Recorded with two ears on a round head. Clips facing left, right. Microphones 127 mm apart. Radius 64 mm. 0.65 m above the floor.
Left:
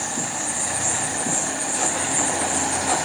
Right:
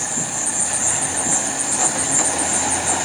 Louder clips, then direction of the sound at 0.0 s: Even; 60° right (ahead or behind).